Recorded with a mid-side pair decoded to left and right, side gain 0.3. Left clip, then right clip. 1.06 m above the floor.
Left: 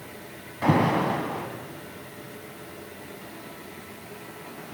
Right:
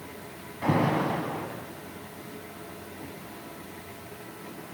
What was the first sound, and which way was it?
An alarm, 45° left.